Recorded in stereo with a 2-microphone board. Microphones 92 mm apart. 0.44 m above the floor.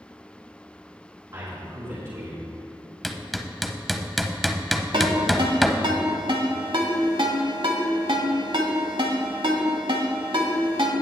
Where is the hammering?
Centre (ahead or behind), 0.6 m.